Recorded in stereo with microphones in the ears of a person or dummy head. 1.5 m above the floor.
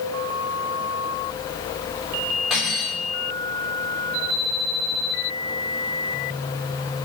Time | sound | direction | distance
2.5 | cutlery clinking | centre (ahead or behind) | 4 m